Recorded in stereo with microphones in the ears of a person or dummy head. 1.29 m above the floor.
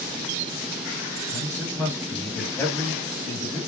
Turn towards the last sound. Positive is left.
turn(degrees=10)  # may be behind; listen again after turning